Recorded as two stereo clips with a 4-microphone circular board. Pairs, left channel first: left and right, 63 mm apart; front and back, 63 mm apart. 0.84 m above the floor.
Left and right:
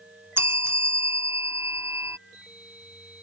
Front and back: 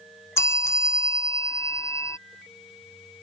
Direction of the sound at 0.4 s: 40° right.